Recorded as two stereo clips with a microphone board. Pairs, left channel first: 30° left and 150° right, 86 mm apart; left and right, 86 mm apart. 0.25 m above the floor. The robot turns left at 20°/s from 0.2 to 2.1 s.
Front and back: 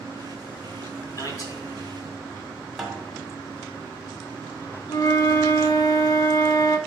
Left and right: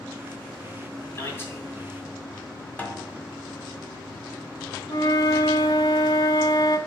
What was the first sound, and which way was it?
A man speaking, 50° left.